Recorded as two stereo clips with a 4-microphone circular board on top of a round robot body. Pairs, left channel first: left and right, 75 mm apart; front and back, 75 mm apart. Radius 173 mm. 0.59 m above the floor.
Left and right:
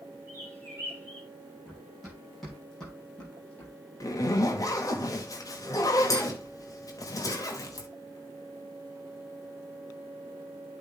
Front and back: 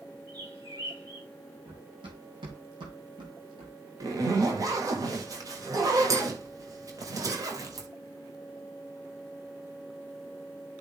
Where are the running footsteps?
175° right, 3.5 m; by 3.7 s 160° left, 2.5 m.